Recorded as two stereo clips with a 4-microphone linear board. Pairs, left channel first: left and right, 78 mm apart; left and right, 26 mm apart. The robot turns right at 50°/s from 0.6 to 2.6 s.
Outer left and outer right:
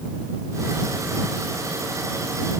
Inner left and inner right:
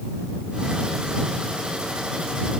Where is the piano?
No piano in this recording.